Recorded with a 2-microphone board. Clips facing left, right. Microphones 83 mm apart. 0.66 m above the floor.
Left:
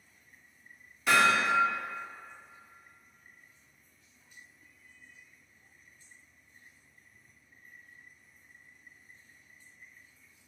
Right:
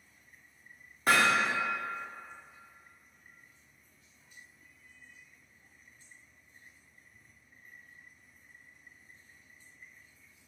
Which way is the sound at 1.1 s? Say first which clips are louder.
Left 1 dB; 45° right (ahead or behind).